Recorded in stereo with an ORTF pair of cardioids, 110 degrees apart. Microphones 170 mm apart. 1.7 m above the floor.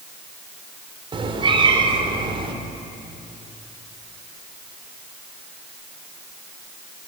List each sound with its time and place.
1.1 s a cat meowing: 30° right, 3 m